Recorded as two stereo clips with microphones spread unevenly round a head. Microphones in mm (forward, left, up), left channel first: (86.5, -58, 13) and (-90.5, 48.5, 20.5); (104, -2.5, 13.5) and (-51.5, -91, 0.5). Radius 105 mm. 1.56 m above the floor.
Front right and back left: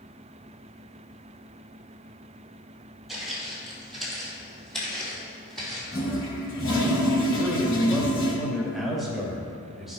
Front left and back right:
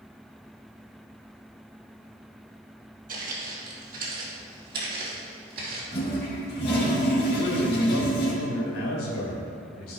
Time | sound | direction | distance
3.1 | footsteps | 125° right | 2.5 m
5.9 | a toilet flushing | straight ahead | 2.5 m
7.3 | a man speaking | 60° left | 2.5 m